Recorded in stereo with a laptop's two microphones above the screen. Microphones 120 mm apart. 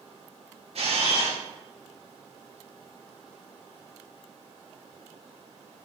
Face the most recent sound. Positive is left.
turn(degrees=-55)  # may be behind; listen again after turning